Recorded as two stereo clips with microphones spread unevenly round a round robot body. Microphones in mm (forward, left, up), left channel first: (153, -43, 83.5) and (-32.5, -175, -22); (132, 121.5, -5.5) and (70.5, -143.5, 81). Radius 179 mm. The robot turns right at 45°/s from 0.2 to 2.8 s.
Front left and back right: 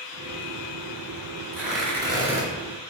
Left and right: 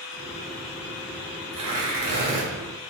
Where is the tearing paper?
75° right, 1.7 m; by 2.5 s 35° right, 1.7 m.